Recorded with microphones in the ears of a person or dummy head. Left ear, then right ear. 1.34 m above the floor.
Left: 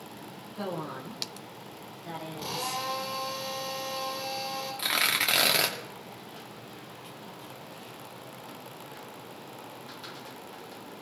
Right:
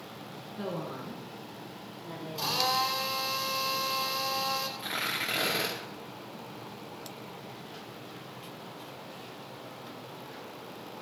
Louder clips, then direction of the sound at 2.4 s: Right 7 dB; 90° right.